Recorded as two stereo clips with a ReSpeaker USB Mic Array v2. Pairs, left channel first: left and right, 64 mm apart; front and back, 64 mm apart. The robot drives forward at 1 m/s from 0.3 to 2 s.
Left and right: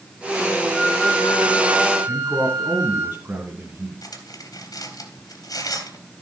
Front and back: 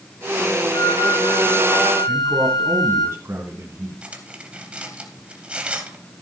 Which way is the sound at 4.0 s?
110° left.